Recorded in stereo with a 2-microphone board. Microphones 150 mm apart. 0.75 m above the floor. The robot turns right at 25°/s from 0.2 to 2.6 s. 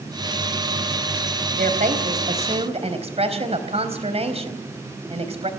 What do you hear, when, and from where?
1.6 s a woman speaking: 70° right (ahead or behind), 3.5 m; by 5.5 s 45° right (ahead or behind), 3.5 m